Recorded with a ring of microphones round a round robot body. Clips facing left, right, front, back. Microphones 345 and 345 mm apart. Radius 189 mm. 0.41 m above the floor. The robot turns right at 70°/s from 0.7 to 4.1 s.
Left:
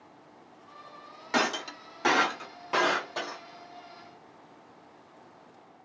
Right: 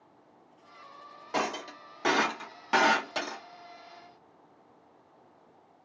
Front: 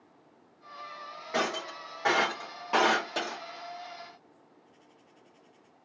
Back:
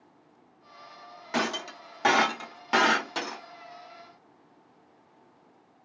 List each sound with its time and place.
1.3 s breaking glass: 125° left, 0.9 m; by 3.4 s 90° right, 0.9 m